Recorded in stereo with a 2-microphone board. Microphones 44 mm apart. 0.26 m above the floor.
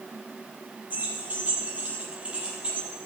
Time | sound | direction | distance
0.9 | keys jangling | 35° right (ahead or behind) | 4 m